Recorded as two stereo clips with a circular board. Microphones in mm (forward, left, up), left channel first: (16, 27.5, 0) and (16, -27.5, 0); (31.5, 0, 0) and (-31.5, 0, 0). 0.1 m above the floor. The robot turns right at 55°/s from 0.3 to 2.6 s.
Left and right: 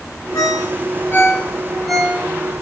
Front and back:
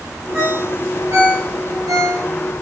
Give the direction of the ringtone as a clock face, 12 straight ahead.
9 o'clock.